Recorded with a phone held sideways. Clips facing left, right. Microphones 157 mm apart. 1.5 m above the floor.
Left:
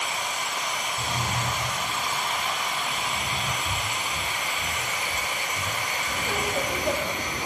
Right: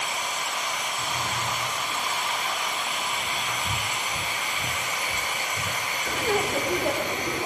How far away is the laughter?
About 4.5 m.